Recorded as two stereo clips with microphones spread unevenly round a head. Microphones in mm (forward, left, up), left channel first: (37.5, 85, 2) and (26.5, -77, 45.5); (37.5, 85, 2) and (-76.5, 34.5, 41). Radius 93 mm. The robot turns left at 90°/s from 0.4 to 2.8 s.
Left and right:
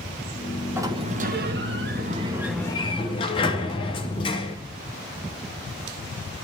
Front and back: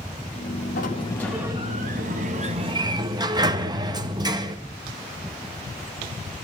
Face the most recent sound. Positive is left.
turn(degrees=155)